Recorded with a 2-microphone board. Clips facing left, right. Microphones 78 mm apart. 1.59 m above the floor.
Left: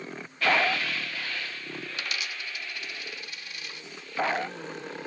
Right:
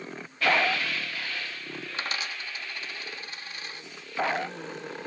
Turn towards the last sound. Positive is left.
turn(degrees=-35)  # may be behind; listen again after turning